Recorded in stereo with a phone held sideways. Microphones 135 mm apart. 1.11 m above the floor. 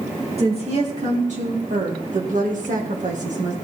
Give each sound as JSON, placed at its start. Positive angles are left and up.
{"t": 0.4, "sound": "a woman speaking", "side_deg": -50, "distance_m": 3.0}